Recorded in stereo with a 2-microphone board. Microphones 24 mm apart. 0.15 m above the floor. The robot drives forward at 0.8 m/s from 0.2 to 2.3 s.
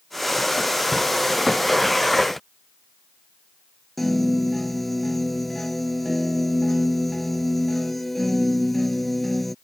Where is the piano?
5° left (ahead or behind).